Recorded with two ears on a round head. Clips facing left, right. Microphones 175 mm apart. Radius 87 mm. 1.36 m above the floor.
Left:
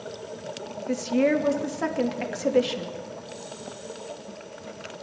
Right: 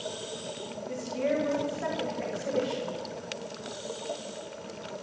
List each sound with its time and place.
0.9 s a woman speaking: 85° left, 3 m